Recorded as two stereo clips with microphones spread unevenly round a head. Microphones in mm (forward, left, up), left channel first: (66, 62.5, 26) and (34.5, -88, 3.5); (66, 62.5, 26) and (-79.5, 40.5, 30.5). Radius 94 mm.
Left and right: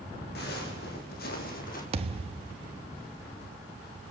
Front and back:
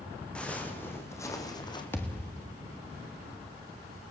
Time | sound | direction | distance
0.3 | footsteps | 90° left | 5 m
1.9 | a thud | 65° right | 1.4 m